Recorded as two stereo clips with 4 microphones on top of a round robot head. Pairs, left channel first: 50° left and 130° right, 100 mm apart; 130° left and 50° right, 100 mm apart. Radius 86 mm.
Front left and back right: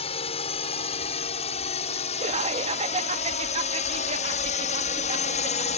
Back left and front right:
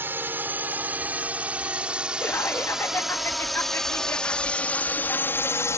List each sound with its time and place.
0.0 s a drone: 20° left; by 5.8 s 65° left
2.2 s laughter: 160° right